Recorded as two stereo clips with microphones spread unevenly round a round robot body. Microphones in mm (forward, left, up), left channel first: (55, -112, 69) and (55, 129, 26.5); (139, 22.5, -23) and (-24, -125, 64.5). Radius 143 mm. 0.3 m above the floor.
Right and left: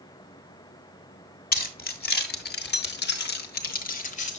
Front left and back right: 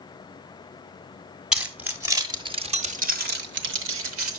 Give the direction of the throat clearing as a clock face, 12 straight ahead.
I don't hear throat clearing.